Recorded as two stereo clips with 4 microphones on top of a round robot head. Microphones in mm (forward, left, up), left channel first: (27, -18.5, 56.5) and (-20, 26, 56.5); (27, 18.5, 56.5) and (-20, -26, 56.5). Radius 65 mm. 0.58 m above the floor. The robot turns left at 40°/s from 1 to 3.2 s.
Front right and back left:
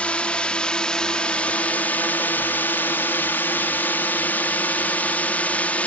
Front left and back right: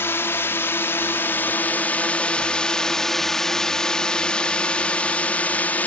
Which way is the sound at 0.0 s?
15° left.